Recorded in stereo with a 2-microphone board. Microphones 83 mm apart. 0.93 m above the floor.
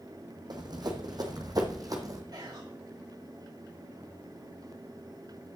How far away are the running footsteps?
About 1.7 m.